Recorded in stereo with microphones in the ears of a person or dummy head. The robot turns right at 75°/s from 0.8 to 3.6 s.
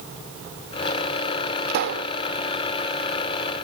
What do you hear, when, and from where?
1.7 s a pop: 115° right; by 2.1 s 80° right